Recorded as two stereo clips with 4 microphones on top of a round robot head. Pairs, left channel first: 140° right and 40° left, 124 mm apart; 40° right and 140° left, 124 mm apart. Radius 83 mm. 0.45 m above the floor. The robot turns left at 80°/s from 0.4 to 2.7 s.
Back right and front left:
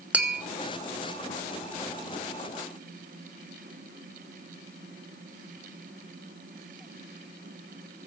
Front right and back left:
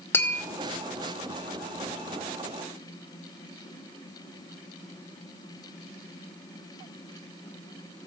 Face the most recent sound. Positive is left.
turn(degrees=160)